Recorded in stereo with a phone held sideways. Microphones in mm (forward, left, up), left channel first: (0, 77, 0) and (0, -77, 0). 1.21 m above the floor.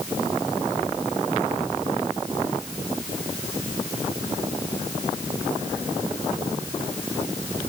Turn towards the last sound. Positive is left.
No sound to turn to.